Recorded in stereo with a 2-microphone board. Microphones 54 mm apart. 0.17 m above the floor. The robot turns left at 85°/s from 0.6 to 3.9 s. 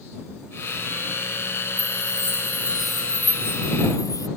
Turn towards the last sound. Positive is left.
turn(degrees=95)